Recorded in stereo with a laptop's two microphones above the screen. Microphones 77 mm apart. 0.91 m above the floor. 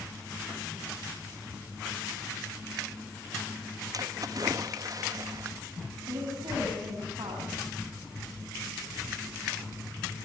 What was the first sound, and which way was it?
A splash, 50° right (ahead or behind).